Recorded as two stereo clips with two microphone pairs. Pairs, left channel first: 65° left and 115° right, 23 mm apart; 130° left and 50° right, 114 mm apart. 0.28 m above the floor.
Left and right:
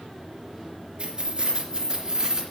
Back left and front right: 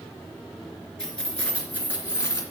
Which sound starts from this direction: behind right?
Keys jangling, at 1.0 s.